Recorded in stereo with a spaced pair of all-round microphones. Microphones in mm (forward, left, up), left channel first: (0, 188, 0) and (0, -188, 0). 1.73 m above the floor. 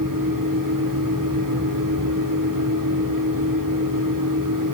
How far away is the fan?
About 2.5 m.